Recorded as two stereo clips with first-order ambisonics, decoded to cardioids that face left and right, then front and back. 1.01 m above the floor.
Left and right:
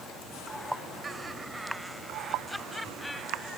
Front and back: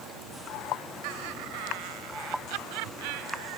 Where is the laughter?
165° right; by 3.6 s 170° left.